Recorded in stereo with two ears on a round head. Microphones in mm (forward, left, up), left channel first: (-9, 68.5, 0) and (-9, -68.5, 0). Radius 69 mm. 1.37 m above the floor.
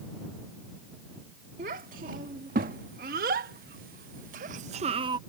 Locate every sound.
1.6 s a child speaking: 55° right (ahead or behind); by 5.2 s 30° right (ahead or behind)